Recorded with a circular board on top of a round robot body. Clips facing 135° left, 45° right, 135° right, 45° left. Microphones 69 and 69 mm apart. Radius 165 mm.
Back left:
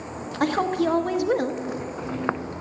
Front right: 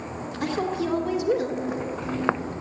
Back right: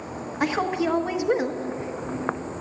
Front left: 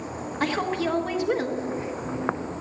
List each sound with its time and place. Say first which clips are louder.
0.4 s a woman speaking: back left 4 dB, back right 2 dB; 150° left, 1.1 m